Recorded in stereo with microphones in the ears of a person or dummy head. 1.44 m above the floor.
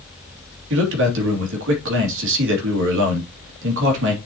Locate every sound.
0.7 s a man speaking: 75° right (ahead or behind), 2.5 m